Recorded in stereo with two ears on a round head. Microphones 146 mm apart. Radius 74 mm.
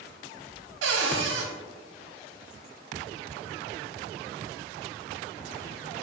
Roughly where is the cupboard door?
Right.